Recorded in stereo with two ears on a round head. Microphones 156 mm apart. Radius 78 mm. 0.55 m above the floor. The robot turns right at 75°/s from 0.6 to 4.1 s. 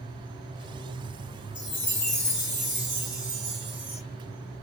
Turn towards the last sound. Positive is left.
turn(degrees=-80)